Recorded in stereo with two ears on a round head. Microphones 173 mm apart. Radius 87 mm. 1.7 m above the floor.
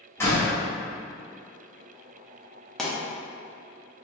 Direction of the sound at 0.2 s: 15° left (ahead or behind).